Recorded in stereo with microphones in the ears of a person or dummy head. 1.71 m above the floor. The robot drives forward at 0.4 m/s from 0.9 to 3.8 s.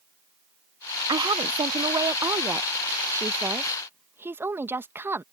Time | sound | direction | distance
1.1 | a woman speaking | 25° right (ahead or behind) | ?